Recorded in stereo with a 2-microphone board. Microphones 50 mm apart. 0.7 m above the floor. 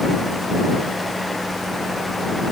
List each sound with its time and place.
Only background noise.